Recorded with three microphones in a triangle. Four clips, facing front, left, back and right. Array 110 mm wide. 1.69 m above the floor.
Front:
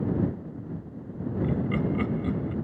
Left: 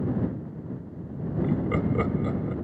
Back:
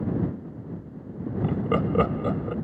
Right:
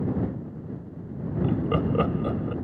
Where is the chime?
I don't hear a chime.